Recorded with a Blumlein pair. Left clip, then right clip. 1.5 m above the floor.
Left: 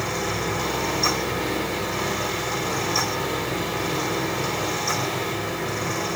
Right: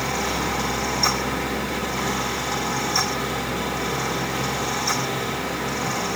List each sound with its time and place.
0.0 s a fan: 15° right, 0.8 m